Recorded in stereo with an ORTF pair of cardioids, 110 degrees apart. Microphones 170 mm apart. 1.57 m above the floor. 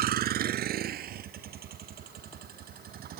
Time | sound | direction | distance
0.0 | a vehicle | 65° right | ?